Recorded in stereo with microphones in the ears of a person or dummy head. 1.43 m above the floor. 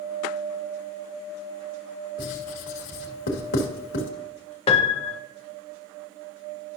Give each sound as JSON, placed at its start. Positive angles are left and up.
{"t": 2.2, "sound": "writing", "side_deg": 60, "distance_m": 1.9}
{"t": 4.7, "sound": "a piano", "side_deg": 35, "distance_m": 0.8}